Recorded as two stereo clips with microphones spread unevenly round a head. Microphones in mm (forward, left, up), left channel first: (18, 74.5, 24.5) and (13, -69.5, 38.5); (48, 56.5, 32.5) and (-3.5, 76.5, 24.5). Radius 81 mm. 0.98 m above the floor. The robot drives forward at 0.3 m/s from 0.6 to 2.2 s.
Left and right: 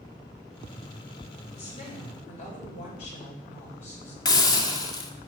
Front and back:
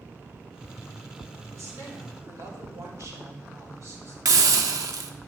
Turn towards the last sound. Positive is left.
turn(degrees=155)